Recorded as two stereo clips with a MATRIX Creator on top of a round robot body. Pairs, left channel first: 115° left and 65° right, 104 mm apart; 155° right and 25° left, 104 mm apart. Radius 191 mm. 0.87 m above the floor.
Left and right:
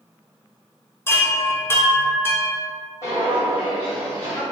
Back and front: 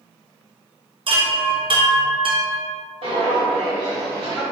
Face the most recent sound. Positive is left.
turn(degrees=100)